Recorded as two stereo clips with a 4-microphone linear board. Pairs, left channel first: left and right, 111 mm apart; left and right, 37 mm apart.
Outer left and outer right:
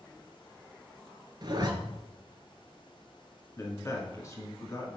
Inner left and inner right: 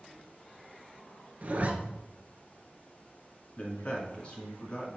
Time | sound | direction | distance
1.4 | a zipper | 40° right (ahead or behind) | 0.9 m
3.6 | a man speaking | 25° left (ahead or behind) | 1.7 m